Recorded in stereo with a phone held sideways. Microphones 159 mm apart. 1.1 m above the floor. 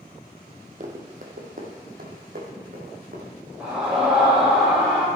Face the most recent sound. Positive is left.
turn(degrees=-10)  # may be behind; listen again after turning